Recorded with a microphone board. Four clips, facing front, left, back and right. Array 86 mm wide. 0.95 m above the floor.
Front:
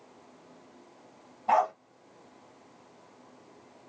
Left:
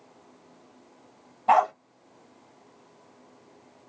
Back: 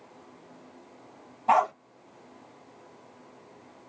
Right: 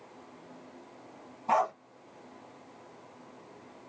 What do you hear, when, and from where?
1.5 s a dog barking: 105° left, 1.1 m